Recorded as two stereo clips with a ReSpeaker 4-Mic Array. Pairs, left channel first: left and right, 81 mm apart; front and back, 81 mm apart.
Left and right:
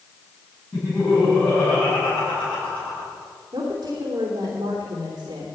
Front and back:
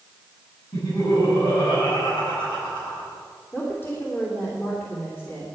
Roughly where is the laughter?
Ahead.